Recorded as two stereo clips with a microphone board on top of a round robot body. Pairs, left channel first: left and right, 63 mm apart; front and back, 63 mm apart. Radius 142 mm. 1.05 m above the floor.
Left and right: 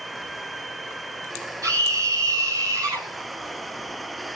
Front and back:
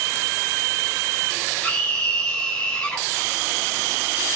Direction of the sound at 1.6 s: 70° right.